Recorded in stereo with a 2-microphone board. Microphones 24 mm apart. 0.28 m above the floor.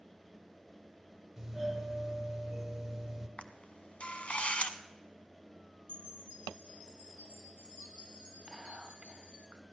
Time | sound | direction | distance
1.4 | a doorbell | 5° right (ahead or behind) | 1.6 m
3.4 | a camera shutter | 55° left (ahead or behind) | 0.8 m
5.9 | a chime | 55° left (ahead or behind) | 3 m
8.5 | whispering | 25° right (ahead or behind) | 1.2 m